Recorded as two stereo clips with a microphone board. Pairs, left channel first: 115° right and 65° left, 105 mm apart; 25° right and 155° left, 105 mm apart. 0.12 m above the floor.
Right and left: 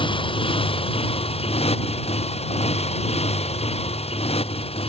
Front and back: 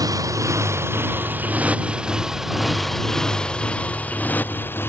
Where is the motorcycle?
145° right; by 4.9 s 90° right.